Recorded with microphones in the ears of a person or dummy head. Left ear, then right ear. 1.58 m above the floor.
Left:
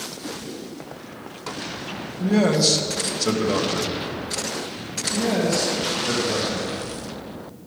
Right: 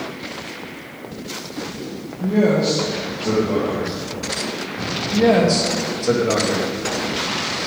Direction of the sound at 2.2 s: 65° left (ahead or behind).